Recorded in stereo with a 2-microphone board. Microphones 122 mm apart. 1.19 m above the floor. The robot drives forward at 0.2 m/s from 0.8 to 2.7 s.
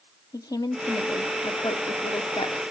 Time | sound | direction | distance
0.3 | a woman speaking | 30° left (ahead or behind) | 0.6 m